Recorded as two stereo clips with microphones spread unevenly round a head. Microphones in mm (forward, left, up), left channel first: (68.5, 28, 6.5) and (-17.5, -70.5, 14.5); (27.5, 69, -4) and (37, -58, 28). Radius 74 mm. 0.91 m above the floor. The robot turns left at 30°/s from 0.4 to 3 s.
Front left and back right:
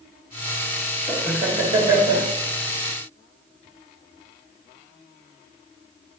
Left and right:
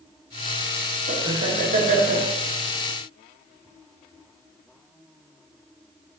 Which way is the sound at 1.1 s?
70° right.